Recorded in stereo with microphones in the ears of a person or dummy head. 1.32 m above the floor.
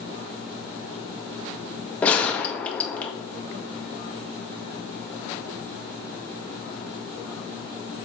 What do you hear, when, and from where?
2.0 s a gunshot: 10° left (ahead or behind), 0.6 m